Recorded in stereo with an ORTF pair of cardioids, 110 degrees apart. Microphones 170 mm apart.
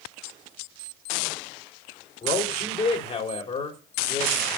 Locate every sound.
2.2 s a man speaking: 30° left, 3.5 m